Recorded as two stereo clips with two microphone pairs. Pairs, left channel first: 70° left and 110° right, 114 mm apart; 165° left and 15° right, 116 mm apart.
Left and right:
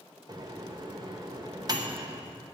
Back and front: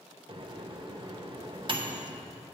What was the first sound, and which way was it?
A microwave, 55° right.